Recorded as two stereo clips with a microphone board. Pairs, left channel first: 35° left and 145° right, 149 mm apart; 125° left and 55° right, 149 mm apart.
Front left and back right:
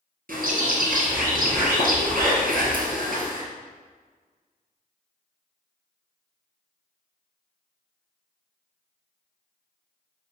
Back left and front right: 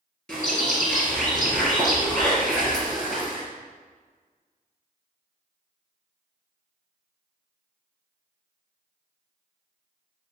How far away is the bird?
About 1.5 m.